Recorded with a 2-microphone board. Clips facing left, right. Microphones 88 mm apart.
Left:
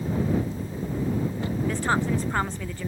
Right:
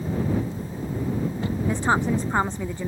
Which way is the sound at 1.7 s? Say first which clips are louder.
Right 3 dB; 20° right (ahead or behind).